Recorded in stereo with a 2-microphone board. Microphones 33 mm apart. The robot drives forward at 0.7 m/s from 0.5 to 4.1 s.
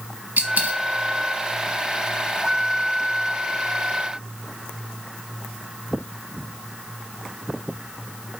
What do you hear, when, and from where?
0.4 s a dropped coin: 60° right (ahead or behind), 1.2 m; by 0.8 s 55° right (ahead or behind), 1.3 m